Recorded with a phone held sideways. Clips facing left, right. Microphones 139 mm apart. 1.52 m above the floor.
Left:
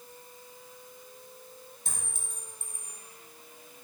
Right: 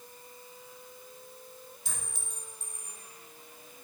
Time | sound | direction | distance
1.9 | a clink | 50° left (ahead or behind) | 1.5 m